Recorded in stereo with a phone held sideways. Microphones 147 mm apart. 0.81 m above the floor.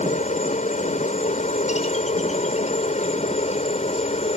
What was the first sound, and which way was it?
A helicopter, 55° left (ahead or behind).